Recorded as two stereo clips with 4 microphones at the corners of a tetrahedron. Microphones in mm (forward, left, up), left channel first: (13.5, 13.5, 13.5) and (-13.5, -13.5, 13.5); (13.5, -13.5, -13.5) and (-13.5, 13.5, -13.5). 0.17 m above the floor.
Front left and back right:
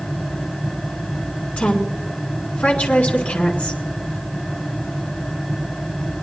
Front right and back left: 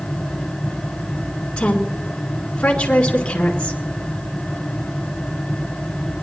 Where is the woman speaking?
10° left, 2 m.